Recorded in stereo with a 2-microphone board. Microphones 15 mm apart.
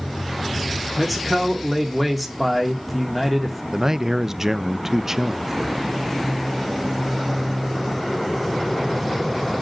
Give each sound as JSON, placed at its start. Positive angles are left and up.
{"t": 1.0, "sound": "a man speaking", "side_deg": 0, "distance_m": 2.5}
{"t": 3.7, "sound": "a man speaking", "side_deg": -25, "distance_m": 0.6}